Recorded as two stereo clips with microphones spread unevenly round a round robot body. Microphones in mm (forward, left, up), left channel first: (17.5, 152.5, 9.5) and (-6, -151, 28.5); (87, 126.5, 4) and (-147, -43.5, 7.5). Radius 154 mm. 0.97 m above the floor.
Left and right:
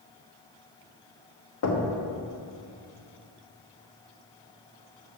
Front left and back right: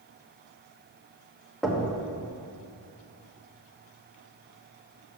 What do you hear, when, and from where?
1.6 s knocking: 125° left, 1.3 m